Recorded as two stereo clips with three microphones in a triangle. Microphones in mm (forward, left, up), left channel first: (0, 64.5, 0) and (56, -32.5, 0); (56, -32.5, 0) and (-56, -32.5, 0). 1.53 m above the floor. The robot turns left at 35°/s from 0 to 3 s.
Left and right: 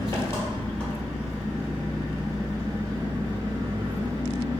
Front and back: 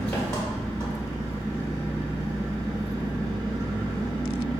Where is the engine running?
75° left, 1.7 m; by 4.6 s 30° right, 1.7 m.